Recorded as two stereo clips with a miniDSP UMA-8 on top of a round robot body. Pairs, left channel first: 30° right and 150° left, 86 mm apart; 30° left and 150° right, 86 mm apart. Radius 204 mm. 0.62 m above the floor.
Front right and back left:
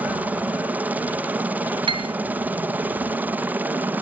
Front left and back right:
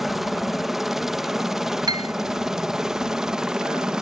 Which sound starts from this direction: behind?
A piano, at 1.9 s.